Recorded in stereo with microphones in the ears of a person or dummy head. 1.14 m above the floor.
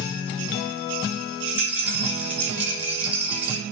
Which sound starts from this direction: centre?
A rattle, at 1.5 s.